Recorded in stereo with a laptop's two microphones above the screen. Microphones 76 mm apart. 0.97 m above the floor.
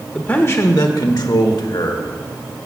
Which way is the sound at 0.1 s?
15° left (ahead or behind).